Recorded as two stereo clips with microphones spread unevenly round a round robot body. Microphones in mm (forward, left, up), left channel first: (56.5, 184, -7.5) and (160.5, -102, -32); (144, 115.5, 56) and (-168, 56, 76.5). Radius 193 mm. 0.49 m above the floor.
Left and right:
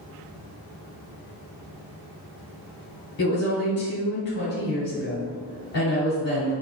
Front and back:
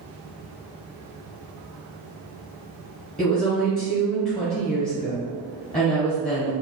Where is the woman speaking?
80° left, 1.8 m.